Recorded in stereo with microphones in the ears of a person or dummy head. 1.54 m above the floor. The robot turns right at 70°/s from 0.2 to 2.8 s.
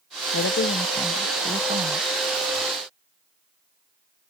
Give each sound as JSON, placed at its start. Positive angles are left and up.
{"t": 0.3, "sound": "a woman speaking", "azimuth_deg": 120}